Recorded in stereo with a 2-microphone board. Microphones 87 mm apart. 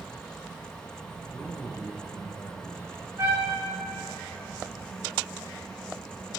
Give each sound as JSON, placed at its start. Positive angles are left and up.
{"t": 1.3, "sound": "a man speaking", "side_deg": 5, "distance_m": 3.5}
{"t": 3.2, "sound": "a trumpet", "side_deg": -35, "distance_m": 6.5}